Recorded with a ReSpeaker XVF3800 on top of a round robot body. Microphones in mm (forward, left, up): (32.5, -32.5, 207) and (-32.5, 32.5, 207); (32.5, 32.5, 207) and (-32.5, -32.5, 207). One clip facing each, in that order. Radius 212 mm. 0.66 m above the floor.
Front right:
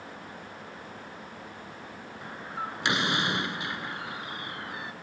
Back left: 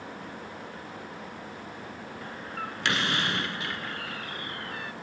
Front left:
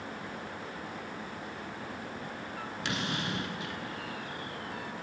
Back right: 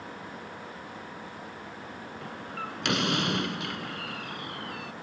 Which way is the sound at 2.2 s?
120° right.